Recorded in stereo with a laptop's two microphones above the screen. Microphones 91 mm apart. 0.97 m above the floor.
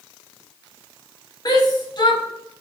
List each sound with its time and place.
1.4 s a shout: 45° left (ahead or behind), 1.3 m